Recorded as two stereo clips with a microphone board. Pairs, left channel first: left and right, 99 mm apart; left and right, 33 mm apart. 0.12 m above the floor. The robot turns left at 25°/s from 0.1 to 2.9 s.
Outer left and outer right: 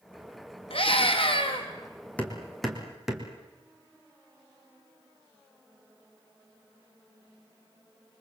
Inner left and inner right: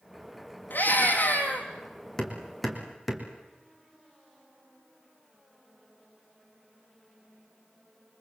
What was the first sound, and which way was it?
A scream, 70° left (ahead or behind).